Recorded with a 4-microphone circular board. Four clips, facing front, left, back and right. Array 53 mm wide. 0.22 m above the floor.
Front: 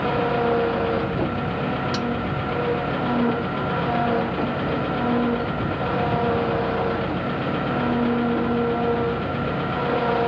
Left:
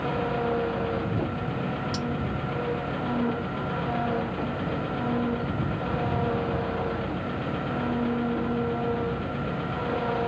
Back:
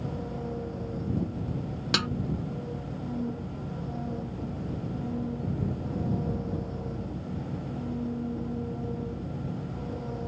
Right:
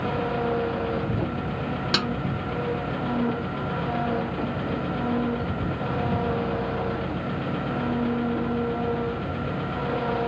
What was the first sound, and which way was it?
An engine running, 5° right.